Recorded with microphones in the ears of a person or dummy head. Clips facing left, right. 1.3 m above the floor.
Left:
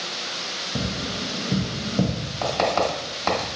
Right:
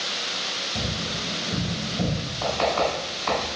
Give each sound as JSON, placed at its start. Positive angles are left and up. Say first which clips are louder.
{"t": 0.8, "sound": "tapping", "louder": "left 3 dB", "side_deg": 75, "distance_m": 1.0}
{"t": 2.4, "sound": "writing", "louder": "left 1 dB", "side_deg": 65, "distance_m": 1.5}